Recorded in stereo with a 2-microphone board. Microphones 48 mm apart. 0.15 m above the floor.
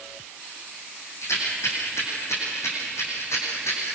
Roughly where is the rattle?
Left.